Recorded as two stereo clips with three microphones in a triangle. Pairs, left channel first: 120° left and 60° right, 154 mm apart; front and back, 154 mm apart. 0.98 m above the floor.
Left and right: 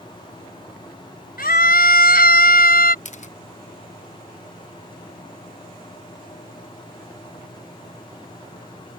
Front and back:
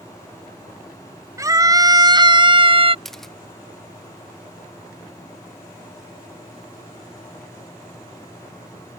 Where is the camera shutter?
90° left.